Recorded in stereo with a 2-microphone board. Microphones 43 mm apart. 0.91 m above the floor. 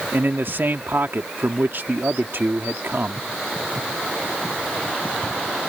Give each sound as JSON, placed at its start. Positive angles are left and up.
{"t": 0.1, "sound": "a man speaking", "side_deg": -60}